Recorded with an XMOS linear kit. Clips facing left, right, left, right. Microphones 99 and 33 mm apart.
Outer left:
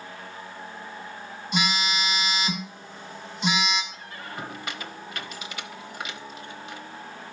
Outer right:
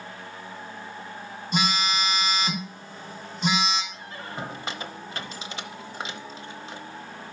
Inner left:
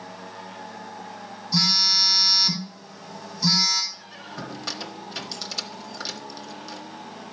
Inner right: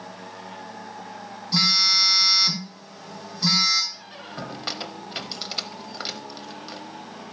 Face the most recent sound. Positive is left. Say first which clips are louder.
# outer right 1 dB, inner right 1 dB
turn(degrees=-30)  # may be behind; listen again after turning